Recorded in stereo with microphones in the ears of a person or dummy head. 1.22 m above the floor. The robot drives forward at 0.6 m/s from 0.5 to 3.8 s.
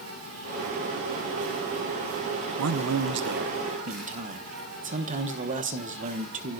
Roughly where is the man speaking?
Right.